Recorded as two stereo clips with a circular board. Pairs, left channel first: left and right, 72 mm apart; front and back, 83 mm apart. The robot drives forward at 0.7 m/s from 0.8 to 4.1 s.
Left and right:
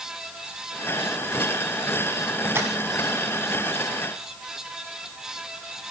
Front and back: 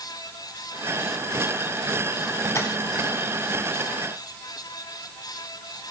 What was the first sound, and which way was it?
Tapping, 40° right.